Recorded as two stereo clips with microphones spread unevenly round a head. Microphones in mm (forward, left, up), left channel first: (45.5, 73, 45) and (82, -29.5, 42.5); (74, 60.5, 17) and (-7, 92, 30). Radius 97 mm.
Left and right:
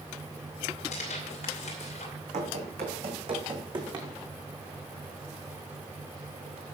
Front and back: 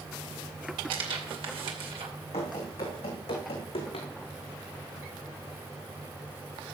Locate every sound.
0.9 s tearing paper: 150° left, 2.5 m
2.3 s running footsteps: 65° right, 3 m; by 4.1 s 20° right, 3.5 m